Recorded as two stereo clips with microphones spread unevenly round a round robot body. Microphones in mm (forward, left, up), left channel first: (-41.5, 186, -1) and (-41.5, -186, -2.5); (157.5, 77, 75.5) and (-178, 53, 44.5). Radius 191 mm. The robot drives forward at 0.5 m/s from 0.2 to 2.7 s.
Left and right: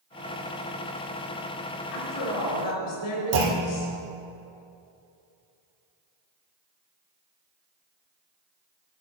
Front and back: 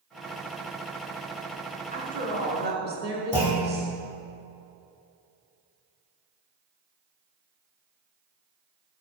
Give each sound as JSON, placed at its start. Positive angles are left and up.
{"t": 1.9, "sound": "a woman speaking", "azimuth_deg": 120, "distance_m": 4.5}
{"t": 3.3, "sound": "a clunk", "azimuth_deg": -90, "distance_m": 2.5}